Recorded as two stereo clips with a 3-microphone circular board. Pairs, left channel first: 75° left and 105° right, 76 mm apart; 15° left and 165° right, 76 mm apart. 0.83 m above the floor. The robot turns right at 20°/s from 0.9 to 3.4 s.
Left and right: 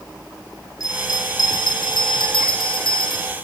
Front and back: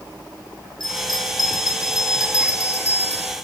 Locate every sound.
0.8 s a bell: 35° left, 3 m; by 3.3 s 80° left, 3 m